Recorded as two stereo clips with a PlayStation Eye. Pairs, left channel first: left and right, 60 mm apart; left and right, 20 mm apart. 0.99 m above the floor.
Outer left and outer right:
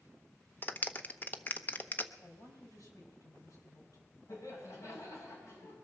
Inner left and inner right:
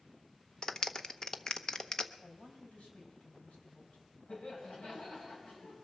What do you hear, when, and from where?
0.6 s a clap: 30° left (ahead or behind), 0.8 m
2.2 s a man speaking: 70° left (ahead or behind), 5 m
4.3 s laughter: 65° left (ahead or behind), 7.5 m